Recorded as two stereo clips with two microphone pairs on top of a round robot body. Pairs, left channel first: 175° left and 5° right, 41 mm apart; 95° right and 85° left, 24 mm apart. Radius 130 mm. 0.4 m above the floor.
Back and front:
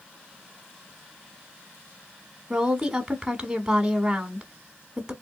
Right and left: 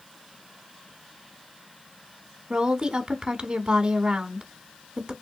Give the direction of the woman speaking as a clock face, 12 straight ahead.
10 o'clock.